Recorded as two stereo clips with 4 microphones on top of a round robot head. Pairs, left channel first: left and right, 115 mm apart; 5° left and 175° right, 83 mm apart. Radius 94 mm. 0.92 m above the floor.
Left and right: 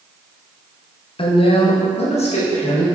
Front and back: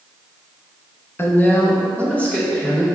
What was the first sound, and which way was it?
A woman speaking, 60° left.